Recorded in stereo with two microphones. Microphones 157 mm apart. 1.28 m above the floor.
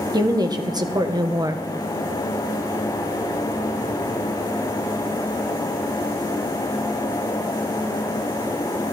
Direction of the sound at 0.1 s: 25° right (ahead or behind).